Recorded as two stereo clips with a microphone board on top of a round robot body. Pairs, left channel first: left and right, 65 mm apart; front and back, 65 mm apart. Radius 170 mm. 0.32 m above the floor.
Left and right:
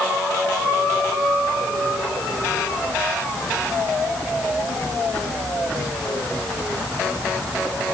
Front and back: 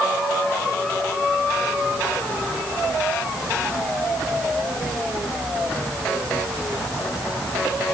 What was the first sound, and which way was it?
Only background noise.